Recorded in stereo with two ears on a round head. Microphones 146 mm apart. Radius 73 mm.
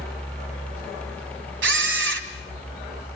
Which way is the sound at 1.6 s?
85° right.